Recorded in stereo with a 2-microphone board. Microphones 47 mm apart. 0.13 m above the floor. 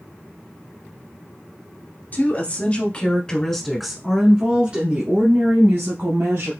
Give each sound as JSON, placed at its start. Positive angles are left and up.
{"t": 2.1, "sound": "a woman speaking", "side_deg": 40, "distance_m": 2.5}